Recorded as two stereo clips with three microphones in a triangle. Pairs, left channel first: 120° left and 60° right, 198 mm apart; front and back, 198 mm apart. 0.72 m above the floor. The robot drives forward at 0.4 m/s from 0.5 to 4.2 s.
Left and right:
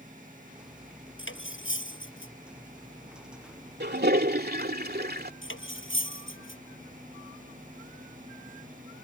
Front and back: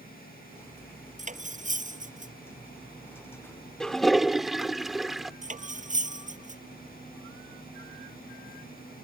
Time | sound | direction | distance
1.2 | cutlery clinking | 130° left | ?
3.8 | a toilet flushing | 85° right | ?
5.4 | cutlery clinking | 130° left | ?